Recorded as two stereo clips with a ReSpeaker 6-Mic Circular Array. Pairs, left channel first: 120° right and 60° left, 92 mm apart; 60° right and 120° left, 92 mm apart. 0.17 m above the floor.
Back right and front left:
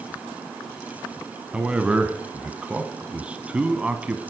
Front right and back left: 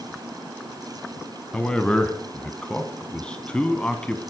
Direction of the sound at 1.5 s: 5° left.